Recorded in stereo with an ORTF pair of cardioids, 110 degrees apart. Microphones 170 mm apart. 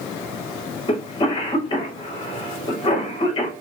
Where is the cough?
30° left, 2.5 m.